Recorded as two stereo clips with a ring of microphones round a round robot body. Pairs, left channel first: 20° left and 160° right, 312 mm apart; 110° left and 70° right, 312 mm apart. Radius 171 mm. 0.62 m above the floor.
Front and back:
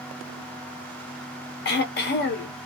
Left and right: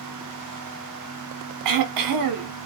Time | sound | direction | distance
1.6 | throat clearing | 35° right | 0.6 m